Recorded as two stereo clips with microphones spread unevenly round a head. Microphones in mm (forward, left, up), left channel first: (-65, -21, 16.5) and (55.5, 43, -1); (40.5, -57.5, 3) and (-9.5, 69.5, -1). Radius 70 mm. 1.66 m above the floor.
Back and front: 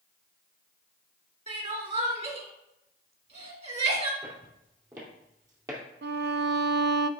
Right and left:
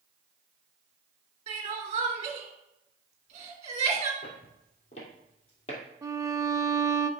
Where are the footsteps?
40° right, 3.5 m; by 5.8 s 45° right, 2.5 m.